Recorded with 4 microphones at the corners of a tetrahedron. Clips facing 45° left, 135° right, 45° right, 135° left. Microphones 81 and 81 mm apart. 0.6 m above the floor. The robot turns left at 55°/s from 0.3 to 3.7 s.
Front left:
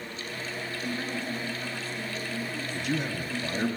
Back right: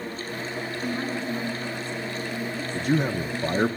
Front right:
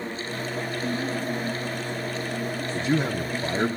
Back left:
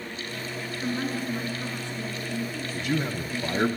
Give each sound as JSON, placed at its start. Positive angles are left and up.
{"t": 0.8, "sound": "a woman speaking", "azimuth_deg": -165, "distance_m": 7.0}
{"t": 2.8, "sound": "a man speaking", "azimuth_deg": -85, "distance_m": 0.8}